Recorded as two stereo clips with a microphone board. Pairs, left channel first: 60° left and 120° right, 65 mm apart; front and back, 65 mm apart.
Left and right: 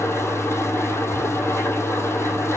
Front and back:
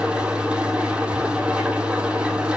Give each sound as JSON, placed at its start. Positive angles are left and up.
{"t": 0.0, "sound": "an engine running", "azimuth_deg": 110, "distance_m": 1.9}